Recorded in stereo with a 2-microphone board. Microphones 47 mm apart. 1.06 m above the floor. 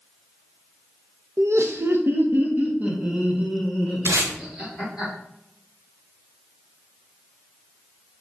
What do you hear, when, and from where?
1.4 s laughter: 70° right (ahead or behind), 1.0 m; by 5.0 s 5° right (ahead or behind), 3 m
4.0 s tape being pulled: 75° right (ahead or behind), 1.2 m